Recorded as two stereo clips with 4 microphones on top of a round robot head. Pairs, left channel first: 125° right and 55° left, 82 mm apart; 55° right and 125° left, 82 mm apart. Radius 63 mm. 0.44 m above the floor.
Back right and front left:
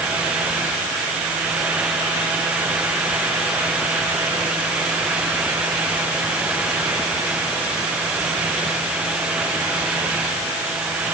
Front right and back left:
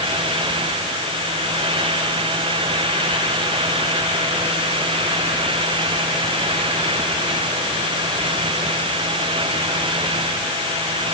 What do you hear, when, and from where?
Only background noise.